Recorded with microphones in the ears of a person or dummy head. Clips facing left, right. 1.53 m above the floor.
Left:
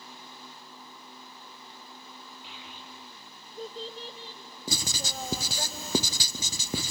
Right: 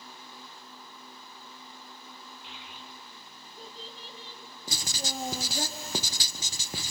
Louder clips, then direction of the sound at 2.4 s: Left 1 dB; 75° left (ahead or behind).